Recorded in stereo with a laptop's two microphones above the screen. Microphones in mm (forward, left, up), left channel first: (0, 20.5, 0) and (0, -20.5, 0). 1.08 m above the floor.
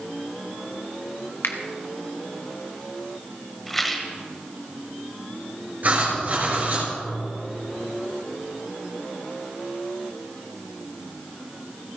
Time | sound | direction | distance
1.4 | a finger snap | 80° left | 1.1 m
3.7 | a rattle | 5° left (ahead or behind) | 1.1 m
5.8 | writing | 45° right (ahead or behind) | 4 m